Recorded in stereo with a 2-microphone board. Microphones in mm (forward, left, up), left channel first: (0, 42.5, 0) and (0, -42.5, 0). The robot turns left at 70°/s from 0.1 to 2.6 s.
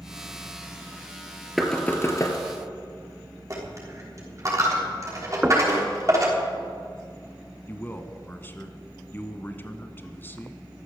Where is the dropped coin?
35° right (ahead or behind), 5 m.